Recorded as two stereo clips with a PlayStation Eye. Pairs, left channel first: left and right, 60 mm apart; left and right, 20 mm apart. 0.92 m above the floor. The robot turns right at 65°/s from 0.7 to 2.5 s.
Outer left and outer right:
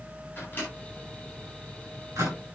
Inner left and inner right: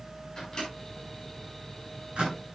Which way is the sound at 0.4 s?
35° left (ahead or behind).